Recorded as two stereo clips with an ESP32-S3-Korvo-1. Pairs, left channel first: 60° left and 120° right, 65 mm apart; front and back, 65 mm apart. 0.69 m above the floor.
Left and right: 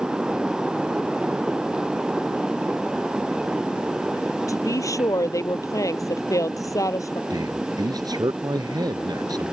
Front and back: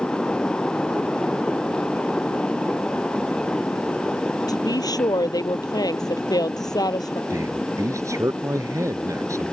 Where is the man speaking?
140° right.